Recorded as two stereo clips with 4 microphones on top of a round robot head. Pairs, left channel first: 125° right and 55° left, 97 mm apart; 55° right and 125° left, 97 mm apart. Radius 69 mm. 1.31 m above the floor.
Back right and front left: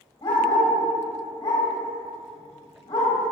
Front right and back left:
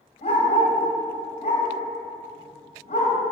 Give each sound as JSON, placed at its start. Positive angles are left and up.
{"t": 0.2, "sound": "a dog barking", "azimuth_deg": -75, "distance_m": 1.8}